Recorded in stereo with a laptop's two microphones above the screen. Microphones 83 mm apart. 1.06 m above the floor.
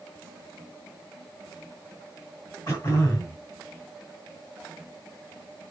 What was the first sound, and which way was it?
Throat clearing, 35° left (ahead or behind).